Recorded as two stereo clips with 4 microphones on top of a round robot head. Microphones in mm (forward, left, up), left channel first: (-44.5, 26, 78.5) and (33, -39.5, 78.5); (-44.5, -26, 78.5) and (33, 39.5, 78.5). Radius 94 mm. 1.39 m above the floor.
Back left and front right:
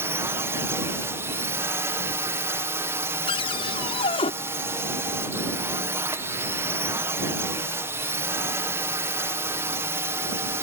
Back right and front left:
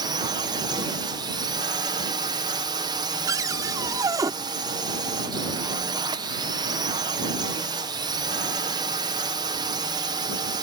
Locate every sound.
0.0 s a drone: 20° left
3.3 s a cupboard door: 100° left